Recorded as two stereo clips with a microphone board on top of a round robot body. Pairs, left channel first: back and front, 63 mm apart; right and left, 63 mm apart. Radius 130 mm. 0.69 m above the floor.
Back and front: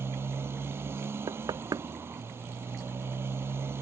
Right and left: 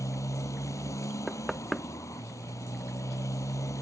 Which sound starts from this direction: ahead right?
A motorcycle, at 0.0 s.